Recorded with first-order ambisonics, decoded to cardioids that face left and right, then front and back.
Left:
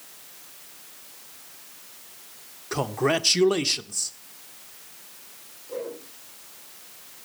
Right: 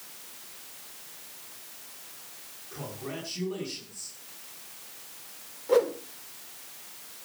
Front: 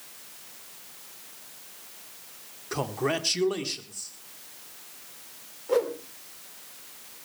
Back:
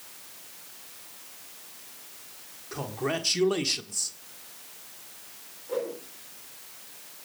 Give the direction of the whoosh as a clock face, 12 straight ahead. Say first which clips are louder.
Right 10 dB, front 6 dB; 2 o'clock.